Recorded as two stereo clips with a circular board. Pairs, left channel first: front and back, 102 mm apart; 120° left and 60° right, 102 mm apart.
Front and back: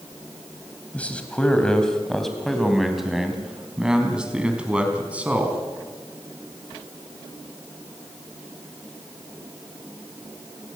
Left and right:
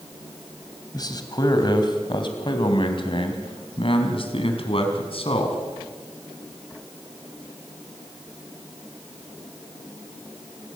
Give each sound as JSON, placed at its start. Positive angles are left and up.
{"t": 0.9, "sound": "a man speaking", "azimuth_deg": 75, "distance_m": 3.0}